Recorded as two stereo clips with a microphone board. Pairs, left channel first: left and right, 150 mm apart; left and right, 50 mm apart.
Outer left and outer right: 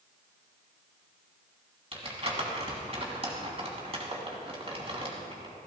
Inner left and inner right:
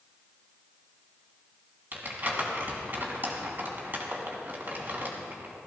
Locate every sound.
1.9 s crumpling: 40° right (ahead or behind), 3 m